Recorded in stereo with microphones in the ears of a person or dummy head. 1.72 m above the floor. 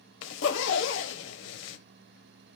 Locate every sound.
0.2 s a zipper: 70° left (ahead or behind), 1.3 m